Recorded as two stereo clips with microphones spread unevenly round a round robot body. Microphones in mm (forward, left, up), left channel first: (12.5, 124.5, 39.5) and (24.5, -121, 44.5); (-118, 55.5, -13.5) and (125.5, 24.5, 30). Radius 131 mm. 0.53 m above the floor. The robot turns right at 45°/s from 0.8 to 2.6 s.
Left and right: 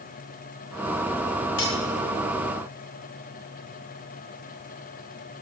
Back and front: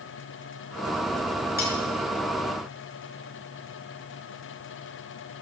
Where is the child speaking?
No child speaking in this recording.